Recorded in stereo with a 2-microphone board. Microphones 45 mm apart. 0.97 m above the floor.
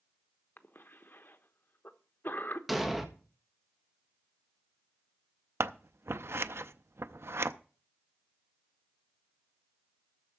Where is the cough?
50° left (ahead or behind), 1.0 m.